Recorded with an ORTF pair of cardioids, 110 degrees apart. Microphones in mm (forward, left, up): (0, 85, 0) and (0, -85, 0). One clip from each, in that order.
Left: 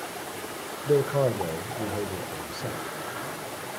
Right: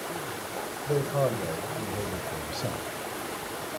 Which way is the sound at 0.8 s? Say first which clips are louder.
Left 4 dB; 40° left.